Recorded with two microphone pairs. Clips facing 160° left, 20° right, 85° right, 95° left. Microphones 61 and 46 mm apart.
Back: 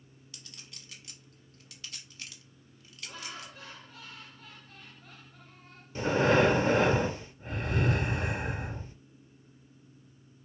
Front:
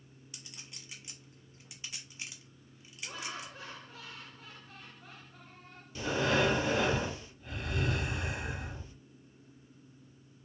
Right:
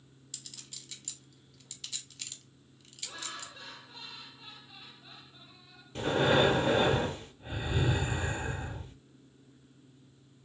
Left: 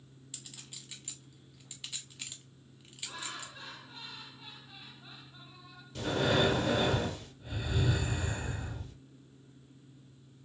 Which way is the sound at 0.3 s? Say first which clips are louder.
Front 1 dB, even; 40° left.